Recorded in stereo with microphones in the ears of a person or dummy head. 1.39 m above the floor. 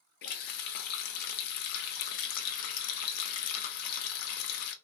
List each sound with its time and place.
0.2 s a running tap: 50° left (ahead or behind), 0.5 m